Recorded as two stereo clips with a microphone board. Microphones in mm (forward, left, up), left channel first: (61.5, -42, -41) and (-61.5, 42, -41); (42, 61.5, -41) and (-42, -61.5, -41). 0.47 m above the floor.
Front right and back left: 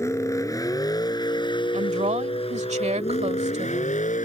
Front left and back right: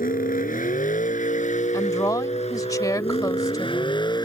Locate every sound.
0.0 s a vehicle: 35° left; by 4.2 s 5° right
1.7 s a woman speaking: 120° left